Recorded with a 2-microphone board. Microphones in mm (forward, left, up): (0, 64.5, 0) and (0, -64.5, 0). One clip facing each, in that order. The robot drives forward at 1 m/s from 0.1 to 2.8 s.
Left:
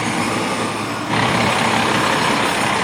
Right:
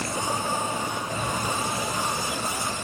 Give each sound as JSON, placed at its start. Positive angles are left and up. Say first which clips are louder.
{"t": 0.0, "sound": "a vehicle", "louder": "left 9 dB", "side_deg": 80}